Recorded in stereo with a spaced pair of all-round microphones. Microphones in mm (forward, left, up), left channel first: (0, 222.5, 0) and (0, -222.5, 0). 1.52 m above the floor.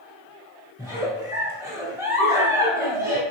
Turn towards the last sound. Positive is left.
turn(degrees=-5)  # may be behind; listen again after turning